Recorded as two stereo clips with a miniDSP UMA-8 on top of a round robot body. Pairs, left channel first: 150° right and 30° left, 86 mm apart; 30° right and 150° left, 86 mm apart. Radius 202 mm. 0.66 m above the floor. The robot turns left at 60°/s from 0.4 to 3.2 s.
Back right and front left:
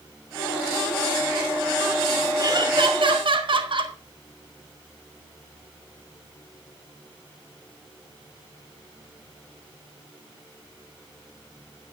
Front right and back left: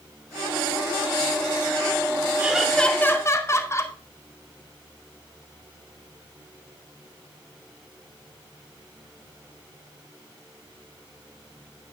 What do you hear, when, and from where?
2.4 s laughter: 75° left, 2.5 m; by 4.0 s 25° left, 2.5 m